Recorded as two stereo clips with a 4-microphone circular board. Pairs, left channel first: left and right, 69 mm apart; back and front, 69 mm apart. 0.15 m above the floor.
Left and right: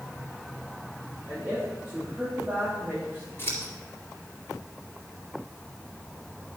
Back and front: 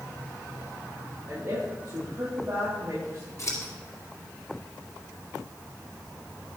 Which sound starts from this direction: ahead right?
A woman speaking, at 1.3 s.